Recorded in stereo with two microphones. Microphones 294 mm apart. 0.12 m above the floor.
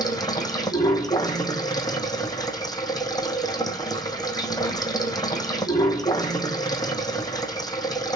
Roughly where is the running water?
Centre.